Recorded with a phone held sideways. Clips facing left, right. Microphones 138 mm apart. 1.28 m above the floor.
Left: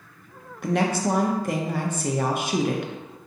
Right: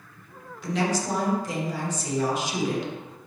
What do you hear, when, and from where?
0.6 s a woman speaking: 60° left (ahead or behind), 0.7 m